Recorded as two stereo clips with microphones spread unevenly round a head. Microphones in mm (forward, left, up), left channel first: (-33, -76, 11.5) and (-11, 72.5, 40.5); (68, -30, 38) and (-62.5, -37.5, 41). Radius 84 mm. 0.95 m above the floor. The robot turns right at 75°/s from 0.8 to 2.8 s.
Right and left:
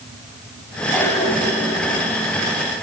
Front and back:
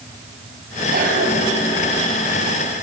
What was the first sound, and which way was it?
A cough, straight behind.